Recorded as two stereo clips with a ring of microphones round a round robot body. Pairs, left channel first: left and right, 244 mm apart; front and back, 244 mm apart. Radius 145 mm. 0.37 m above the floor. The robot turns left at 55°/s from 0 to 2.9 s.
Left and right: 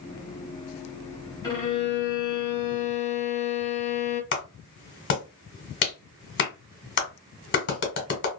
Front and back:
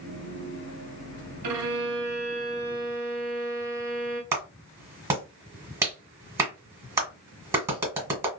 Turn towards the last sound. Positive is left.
turn(degrees=105)